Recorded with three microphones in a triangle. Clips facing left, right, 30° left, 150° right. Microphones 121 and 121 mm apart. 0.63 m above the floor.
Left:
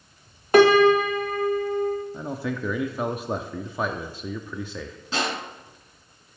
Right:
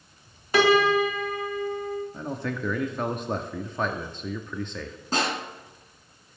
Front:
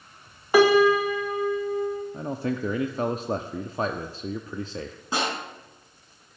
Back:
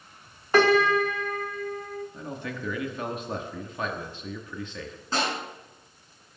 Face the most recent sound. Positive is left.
turn(degrees=-40)